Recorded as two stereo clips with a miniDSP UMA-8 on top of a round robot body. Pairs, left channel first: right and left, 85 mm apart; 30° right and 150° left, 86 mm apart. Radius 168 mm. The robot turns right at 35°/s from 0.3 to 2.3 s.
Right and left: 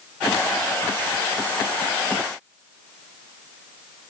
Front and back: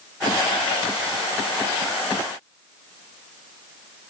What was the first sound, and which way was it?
Only background noise.